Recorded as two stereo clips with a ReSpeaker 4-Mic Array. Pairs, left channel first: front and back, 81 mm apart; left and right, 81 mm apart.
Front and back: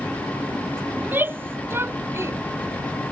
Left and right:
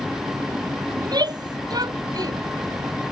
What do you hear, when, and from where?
1.0 s a shout: 115° right; by 2.4 s 125° right